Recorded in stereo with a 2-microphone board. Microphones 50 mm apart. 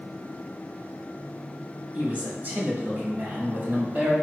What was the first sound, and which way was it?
A man speaking, 35° right (ahead or behind).